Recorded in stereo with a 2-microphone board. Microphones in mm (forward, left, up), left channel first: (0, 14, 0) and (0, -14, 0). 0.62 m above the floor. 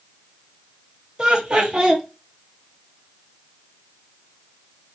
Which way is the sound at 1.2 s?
30° right (ahead or behind).